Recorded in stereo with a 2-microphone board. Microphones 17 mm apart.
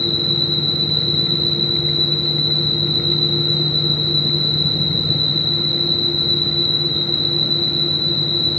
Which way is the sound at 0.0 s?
45° left (ahead or behind).